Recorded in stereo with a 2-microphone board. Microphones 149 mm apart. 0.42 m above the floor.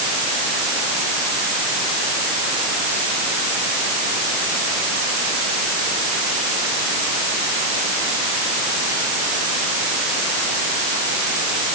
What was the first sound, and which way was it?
Only background noise.